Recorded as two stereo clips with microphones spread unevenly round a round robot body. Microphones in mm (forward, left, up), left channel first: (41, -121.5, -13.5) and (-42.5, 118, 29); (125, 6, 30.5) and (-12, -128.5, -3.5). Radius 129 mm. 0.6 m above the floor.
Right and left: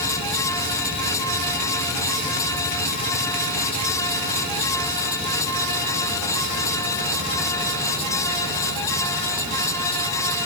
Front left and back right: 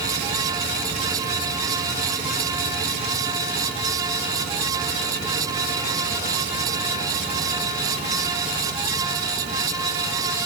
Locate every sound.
Only background noise.